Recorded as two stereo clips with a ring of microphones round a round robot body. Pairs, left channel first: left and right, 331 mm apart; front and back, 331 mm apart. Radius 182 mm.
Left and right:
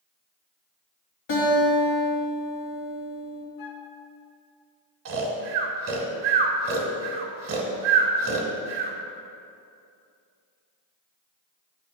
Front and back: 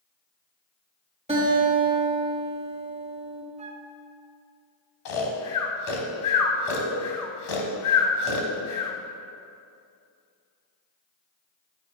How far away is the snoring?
About 1.0 m.